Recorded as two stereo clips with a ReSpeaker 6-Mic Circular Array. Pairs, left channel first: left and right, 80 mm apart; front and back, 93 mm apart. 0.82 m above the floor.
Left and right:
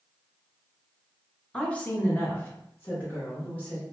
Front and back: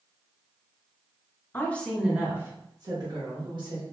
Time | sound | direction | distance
1.5 | a woman speaking | 35° left | 0.6 m